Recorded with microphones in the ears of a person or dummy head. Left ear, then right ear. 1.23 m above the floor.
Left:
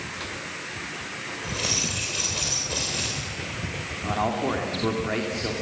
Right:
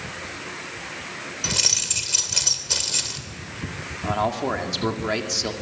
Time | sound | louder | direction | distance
1.4 | keys jangling | right 5 dB | 70° right (ahead or behind) | 3 m
4.0 | a man speaking | right 2 dB | 85° right | 2.5 m